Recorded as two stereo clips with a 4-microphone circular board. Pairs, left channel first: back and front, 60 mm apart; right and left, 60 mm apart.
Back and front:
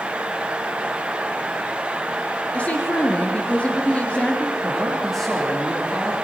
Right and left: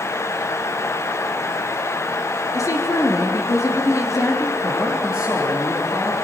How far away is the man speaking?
About 7.5 m.